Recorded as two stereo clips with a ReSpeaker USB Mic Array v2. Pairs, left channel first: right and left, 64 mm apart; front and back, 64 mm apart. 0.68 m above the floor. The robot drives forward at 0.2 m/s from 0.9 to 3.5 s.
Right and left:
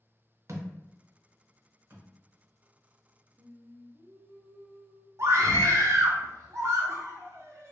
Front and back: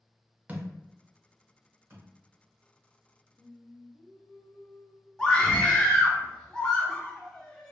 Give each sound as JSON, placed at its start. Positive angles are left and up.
{"t": 0.5, "sound": "a thud", "azimuth_deg": 120, "distance_m": 0.5}
{"t": 3.4, "sound": "singing", "azimuth_deg": 25, "distance_m": 0.7}
{"t": 5.2, "sound": "a scream", "azimuth_deg": 75, "distance_m": 0.7}